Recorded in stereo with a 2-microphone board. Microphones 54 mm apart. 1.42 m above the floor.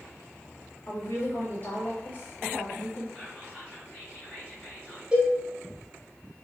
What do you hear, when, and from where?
0.9 s a woman speaking: 40° left (ahead or behind), 1.1 m
3.1 s whispering: 25° left (ahead or behind), 1.3 m
5.1 s a cowbell: 15° right (ahead or behind), 0.8 m